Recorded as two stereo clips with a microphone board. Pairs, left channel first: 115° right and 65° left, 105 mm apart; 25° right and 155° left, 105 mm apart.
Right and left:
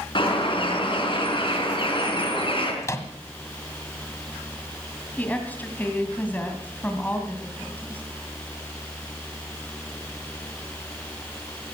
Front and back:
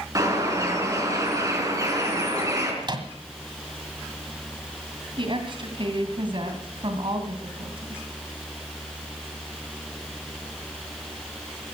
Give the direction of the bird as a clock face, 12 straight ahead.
5 o'clock.